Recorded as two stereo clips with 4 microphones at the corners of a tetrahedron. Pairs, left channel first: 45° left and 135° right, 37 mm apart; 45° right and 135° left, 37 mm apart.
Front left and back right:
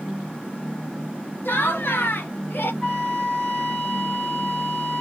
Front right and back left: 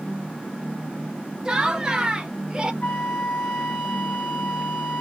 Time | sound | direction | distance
1.4 | laughter | 65° left | 1.1 m
2.8 | a flute | 30° right | 1.6 m